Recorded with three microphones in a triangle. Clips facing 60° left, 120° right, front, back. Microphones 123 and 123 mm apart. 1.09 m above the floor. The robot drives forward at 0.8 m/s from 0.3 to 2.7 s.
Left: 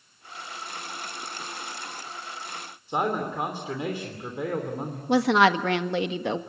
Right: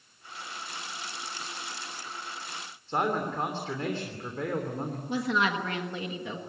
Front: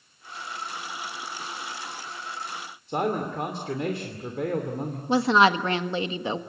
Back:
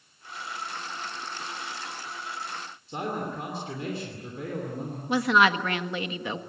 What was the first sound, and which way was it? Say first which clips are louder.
A man speaking: left 2 dB, front 5 dB; 15° right.